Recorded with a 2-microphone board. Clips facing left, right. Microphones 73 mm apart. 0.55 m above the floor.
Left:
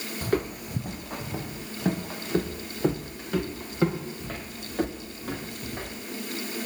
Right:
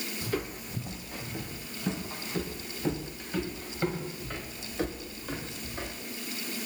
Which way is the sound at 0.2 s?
45° left (ahead or behind).